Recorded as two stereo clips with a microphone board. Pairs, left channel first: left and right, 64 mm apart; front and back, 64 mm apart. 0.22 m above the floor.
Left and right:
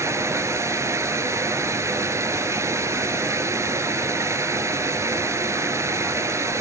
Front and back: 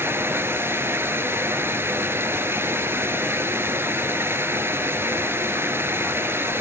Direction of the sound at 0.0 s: 130° right.